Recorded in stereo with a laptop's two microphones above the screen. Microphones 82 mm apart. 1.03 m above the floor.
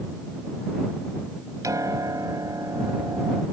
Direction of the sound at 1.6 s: 50° right (ahead or behind).